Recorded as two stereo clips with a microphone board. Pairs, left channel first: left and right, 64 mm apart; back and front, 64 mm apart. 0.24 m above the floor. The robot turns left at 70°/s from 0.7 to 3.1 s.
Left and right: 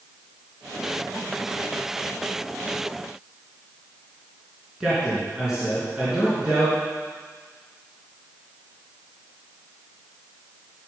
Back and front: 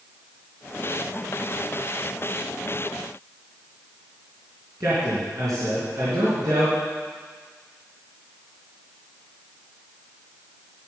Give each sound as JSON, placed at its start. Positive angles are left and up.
{"t": 4.8, "sound": "a man speaking", "azimuth_deg": -15, "distance_m": 3.5}